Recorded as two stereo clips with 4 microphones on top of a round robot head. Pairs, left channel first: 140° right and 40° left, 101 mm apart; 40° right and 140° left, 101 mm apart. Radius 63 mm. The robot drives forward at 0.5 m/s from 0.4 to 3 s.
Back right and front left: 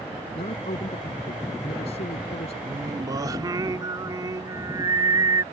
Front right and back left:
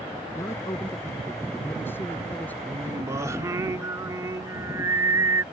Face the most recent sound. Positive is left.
turn(degrees=85)